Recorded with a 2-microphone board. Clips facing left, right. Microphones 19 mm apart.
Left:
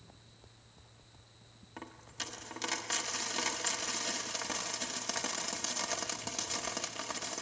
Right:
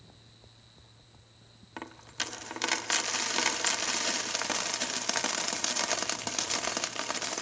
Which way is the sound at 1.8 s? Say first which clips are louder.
Right 6 dB; 35° right (ahead or behind).